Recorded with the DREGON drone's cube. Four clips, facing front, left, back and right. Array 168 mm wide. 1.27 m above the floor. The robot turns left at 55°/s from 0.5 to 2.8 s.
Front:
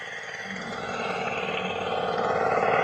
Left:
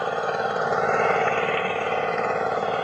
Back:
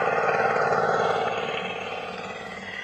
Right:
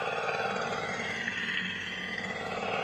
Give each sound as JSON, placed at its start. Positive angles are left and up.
{"t": 0.0, "sound": "an engine running", "azimuth_deg": 150}